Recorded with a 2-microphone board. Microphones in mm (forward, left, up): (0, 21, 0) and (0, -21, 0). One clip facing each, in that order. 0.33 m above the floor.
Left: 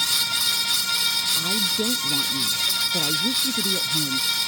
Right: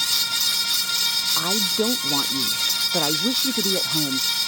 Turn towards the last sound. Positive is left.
turn(degrees=-55)  # may be behind; listen again after turning